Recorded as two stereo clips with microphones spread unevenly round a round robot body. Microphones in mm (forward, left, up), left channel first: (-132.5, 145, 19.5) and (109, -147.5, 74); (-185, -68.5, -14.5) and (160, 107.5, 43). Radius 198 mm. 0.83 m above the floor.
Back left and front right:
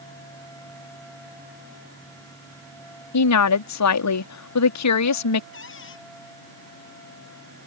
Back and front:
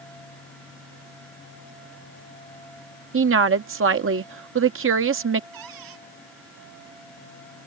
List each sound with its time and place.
3.1 s a woman speaking: 90° left
5.5 s a cupboard door: 65° left